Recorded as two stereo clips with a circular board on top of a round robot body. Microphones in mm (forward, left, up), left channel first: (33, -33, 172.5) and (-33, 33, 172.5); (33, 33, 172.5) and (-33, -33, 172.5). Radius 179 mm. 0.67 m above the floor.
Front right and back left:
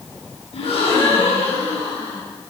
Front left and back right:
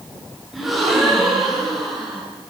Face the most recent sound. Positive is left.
turn(degrees=-45)